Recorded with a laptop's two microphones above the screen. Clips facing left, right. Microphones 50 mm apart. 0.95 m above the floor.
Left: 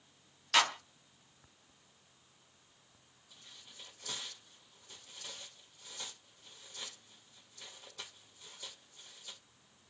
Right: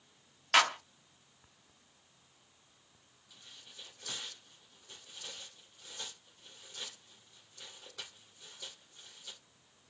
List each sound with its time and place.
0.5 s a clap: 35° right (ahead or behind), 0.9 m
3.3 s tearing paper: 75° right (ahead or behind), 3 m